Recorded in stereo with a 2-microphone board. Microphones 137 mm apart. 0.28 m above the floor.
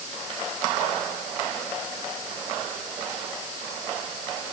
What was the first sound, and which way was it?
Only background noise.